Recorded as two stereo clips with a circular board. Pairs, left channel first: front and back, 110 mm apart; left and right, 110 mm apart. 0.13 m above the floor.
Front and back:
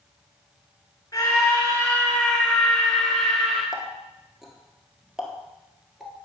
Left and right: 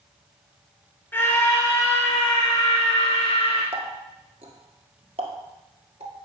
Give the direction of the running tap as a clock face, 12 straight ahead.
3 o'clock.